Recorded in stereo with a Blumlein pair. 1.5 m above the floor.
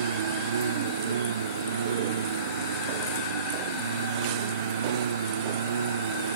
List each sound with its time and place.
0.0 s a lawn mower: 65° right